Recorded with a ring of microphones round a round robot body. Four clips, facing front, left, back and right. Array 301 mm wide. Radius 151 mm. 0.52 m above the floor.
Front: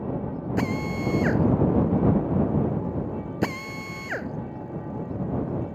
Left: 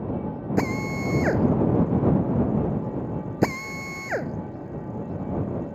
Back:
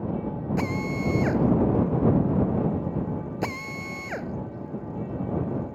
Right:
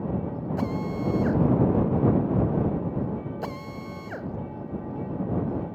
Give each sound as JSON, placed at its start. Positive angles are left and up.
{"t": 0.6, "sound": "a drill", "azimuth_deg": 75}